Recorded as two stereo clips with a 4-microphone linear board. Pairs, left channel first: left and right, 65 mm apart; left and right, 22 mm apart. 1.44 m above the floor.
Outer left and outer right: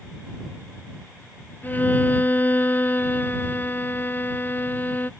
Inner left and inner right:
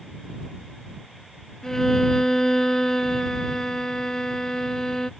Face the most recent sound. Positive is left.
turn(degrees=30)  # may be behind; listen again after turning